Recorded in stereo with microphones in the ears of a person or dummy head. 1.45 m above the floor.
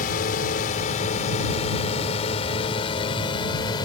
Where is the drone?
40° left (ahead or behind); by 3.9 s 20° left (ahead or behind).